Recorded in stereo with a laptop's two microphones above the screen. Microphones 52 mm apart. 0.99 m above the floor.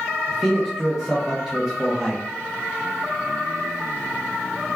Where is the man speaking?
10° right (ahead or behind), 0.6 m.